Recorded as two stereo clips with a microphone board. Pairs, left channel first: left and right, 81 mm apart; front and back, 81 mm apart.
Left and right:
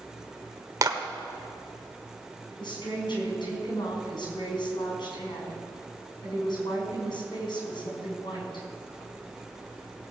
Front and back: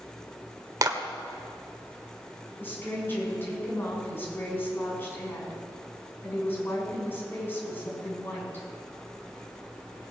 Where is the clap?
135° right, 1.5 m.